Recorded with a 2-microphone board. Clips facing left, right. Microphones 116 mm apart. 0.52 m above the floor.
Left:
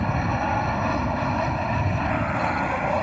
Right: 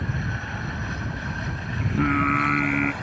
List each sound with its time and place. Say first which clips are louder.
0.0 s an aircraft: left 8 dB; 60° left (ahead or behind)
1.8 s singing: right 2 dB; 80° right